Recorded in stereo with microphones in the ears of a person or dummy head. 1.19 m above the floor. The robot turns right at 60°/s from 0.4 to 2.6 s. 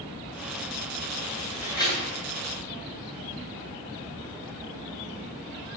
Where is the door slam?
10° right (ahead or behind), 9 m; by 2.1 s 40° right (ahead or behind), 9 m.